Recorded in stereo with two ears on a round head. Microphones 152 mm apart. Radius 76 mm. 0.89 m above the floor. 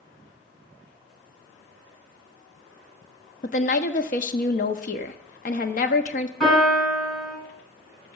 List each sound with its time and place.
3.4 s a woman speaking: 50° left (ahead or behind), 1.0 m
6.4 s a piano: 5° left (ahead or behind), 8 m